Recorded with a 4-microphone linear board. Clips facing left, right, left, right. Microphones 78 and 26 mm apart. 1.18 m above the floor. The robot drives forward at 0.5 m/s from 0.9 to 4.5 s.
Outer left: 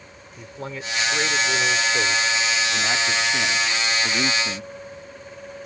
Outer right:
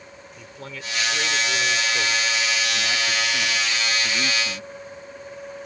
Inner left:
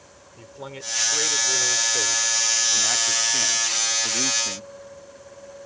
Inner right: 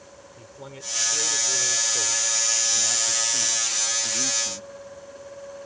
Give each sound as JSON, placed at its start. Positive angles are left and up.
{"t": 0.4, "sound": "a man speaking", "side_deg": 30}